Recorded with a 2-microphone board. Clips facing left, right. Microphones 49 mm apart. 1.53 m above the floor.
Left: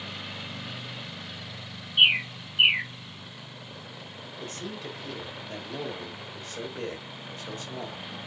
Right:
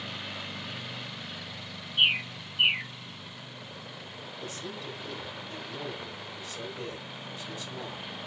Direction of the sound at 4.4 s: 45° left (ahead or behind).